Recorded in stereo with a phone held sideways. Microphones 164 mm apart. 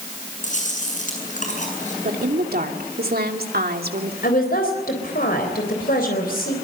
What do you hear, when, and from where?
0.4 s chewing: 50° left (ahead or behind), 7.5 m
2.0 s a woman speaking: 70° right (ahead or behind), 2.5 m
4.2 s a woman speaking: 70° left (ahead or behind), 3.5 m